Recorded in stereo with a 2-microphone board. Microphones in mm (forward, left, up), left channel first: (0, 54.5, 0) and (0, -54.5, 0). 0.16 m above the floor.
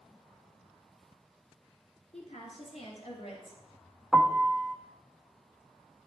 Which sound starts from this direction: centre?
A piano, at 4.1 s.